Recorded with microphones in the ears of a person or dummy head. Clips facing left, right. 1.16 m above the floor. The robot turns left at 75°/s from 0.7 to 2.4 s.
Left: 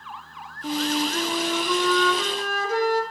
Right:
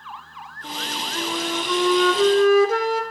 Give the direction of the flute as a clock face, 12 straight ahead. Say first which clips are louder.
Left 8 dB; 10 o'clock.